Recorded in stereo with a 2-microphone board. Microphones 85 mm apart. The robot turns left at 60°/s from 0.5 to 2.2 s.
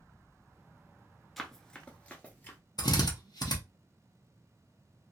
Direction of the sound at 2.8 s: 60° left (ahead or behind).